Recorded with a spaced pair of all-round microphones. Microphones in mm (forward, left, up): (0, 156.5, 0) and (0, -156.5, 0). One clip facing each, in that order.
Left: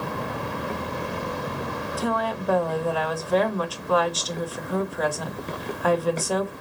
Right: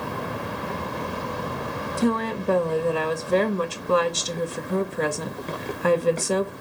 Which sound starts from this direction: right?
A woman speaking, at 2.0 s.